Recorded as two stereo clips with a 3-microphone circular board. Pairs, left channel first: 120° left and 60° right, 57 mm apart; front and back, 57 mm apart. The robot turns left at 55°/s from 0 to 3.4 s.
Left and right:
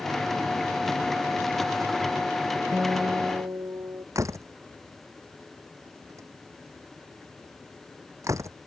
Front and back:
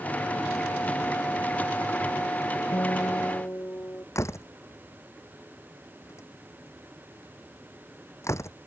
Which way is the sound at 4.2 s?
35° right.